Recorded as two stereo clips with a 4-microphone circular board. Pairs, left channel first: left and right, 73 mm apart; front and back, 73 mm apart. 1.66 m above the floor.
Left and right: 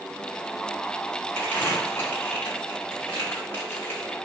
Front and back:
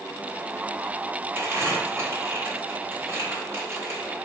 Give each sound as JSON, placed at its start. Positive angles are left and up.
{"t": 1.4, "sound": "crumpling", "azimuth_deg": 145, "distance_m": 1.6}